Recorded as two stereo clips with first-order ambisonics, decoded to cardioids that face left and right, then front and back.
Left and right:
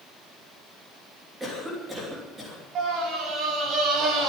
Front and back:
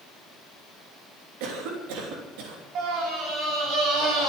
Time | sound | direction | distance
1.4 | a cough | 170° right | 3 m
2.8 | a scream | 140° right | 6 m